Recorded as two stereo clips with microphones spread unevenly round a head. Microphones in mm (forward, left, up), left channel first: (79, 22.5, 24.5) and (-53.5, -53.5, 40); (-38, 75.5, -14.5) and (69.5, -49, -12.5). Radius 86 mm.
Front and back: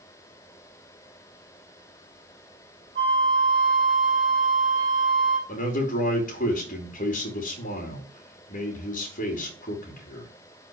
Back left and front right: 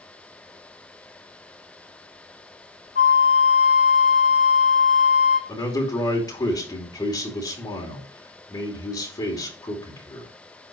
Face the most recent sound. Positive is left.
turn(degrees=65)